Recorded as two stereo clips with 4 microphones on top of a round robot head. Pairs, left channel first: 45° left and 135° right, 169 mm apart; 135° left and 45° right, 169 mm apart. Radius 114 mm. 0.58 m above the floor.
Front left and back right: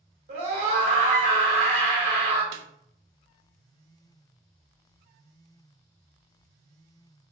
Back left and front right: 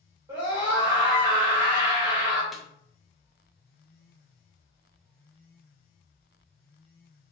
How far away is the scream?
About 2.0 m.